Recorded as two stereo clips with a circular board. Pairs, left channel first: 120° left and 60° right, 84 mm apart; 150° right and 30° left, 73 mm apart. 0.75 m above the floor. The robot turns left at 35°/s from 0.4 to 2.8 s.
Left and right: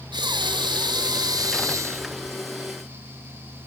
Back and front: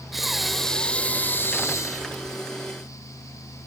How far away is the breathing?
About 0.6 m.